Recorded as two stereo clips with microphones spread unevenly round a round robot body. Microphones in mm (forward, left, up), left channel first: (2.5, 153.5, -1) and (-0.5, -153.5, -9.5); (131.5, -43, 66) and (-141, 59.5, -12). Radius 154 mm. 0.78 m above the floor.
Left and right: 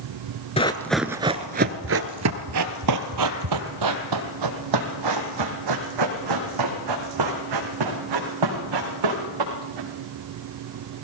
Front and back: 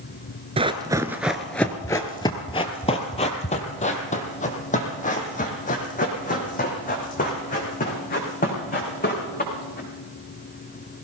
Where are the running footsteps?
75° left, 0.7 m; by 9.9 s 80° right, 5 m.